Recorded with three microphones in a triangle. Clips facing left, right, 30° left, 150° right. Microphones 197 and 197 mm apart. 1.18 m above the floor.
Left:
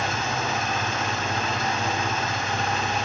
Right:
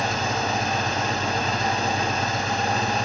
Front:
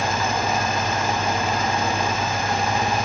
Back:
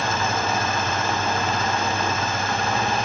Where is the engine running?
45° right, 0.7 m.